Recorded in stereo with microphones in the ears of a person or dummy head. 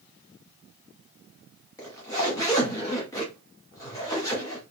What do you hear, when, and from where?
1.8 s a zipper: 20° left (ahead or behind), 0.8 m